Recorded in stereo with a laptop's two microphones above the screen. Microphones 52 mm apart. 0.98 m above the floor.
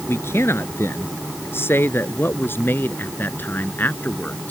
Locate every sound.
0.1 s a man speaking: 55° left (ahead or behind); by 4.5 s 35° left (ahead or behind)